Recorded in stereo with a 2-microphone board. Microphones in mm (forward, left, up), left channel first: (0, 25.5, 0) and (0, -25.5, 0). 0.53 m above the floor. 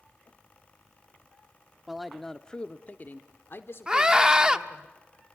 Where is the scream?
15° right (ahead or behind), 0.9 m.